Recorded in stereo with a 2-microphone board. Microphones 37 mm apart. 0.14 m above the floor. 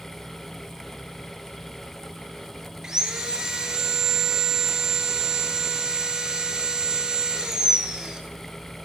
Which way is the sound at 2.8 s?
20° right (ahead or behind).